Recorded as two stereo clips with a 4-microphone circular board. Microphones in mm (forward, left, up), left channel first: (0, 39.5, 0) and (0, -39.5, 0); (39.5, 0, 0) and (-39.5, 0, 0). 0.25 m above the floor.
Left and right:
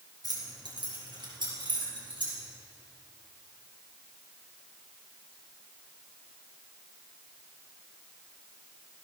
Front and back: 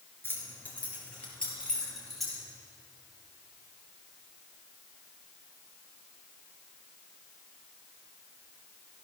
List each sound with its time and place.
0.2 s keys jangling: 60° right, 3 m; by 2.4 s 90° right, 5.5 m